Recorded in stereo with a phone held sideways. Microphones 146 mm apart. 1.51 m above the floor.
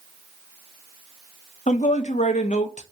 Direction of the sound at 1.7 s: 55° left (ahead or behind).